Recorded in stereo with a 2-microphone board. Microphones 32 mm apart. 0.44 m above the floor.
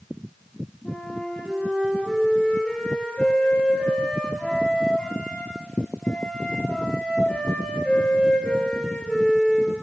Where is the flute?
25° left (ahead or behind), 6 m.